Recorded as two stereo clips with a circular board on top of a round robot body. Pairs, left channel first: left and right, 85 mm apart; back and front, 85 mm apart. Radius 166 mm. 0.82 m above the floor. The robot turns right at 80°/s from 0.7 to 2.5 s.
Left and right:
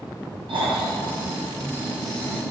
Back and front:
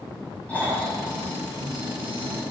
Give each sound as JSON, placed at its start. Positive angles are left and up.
{"t": 0.5, "sound": "snoring", "azimuth_deg": -105, "distance_m": 6.5}